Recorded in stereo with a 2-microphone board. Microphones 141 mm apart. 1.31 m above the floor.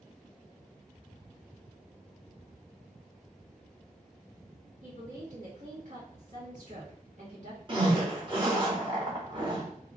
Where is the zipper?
35° right (ahead or behind), 1.2 m.